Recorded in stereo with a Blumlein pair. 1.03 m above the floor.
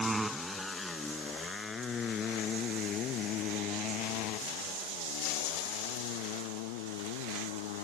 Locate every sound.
0.0 s a motorcycle: 10° right; by 7.8 s 50° left